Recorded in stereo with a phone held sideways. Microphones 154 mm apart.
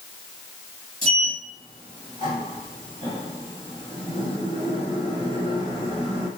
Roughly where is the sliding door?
Right.